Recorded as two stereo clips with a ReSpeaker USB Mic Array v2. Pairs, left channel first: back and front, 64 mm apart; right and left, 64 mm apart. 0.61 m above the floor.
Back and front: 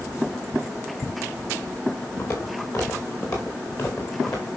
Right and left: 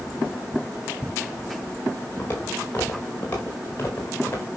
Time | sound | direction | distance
2.2 | footsteps | 150° right | 5.5 m